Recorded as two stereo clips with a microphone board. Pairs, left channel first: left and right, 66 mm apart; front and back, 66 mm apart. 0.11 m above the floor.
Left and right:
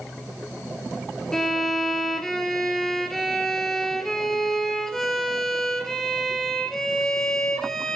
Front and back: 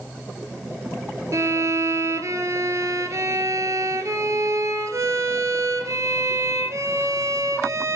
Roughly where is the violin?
Behind.